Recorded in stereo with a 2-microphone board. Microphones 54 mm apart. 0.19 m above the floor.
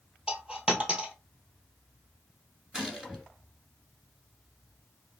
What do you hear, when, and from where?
0.3 s a dropped coin: 15° right (ahead or behind), 1.4 m
2.7 s a gunshot: 15° right (ahead or behind), 2 m